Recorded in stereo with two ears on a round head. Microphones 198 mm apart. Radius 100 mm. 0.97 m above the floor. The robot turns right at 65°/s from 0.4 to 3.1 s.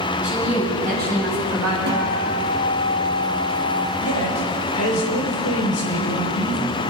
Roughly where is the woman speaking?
Behind.